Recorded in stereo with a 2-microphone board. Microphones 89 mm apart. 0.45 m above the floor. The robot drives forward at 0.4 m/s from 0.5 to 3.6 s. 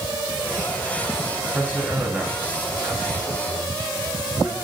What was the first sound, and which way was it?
A man speaking, 15° right (ahead or behind).